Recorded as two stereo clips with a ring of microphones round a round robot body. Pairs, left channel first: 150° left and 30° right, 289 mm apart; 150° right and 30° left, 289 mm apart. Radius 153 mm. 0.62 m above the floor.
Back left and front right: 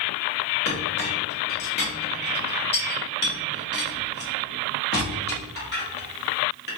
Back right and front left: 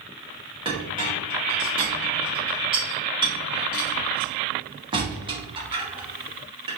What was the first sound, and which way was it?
A clink, 100° left.